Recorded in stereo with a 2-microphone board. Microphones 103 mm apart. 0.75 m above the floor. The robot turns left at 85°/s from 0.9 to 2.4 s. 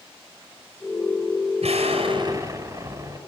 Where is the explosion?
85° right, 5.5 m; by 3.2 s 150° right, 5.5 m.